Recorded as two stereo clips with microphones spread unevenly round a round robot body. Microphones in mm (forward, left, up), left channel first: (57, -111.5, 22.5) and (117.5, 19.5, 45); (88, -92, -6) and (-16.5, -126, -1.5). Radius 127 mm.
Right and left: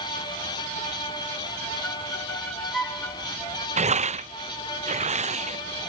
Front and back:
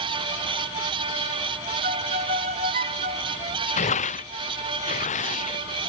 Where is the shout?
No shout in this recording.